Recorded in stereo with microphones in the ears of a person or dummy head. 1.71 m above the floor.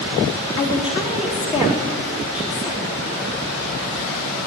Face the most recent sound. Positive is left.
turn(degrees=30)  # may be behind; listen again after turning